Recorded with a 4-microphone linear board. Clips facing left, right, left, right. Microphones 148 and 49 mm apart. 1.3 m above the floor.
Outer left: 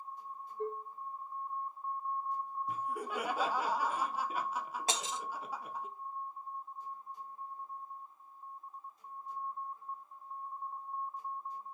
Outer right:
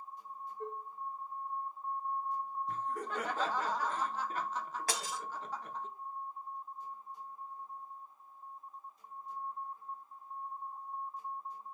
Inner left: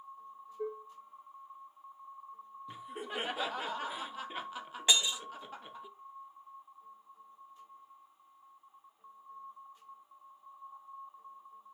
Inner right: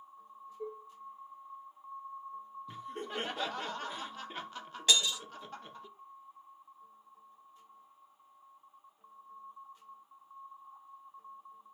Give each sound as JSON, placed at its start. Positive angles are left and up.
{"t": 0.6, "sound": "dishes clattering", "side_deg": 80, "distance_m": 3.5}
{"t": 2.7, "sound": "laughter", "side_deg": 10, "distance_m": 0.5}
{"t": 4.9, "sound": "breaking glass", "side_deg": 20, "distance_m": 0.6}